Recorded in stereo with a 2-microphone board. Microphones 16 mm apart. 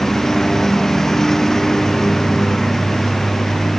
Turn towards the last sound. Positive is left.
turn(degrees=30)  # may be behind; listen again after turning